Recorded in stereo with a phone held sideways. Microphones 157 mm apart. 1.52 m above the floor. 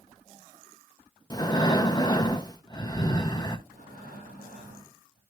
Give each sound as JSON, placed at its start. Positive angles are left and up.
{"t": 1.3, "sound": "breathing", "side_deg": 25, "distance_m": 0.6}
{"t": 3.7, "sound": "breathing", "side_deg": -60, "distance_m": 6.0}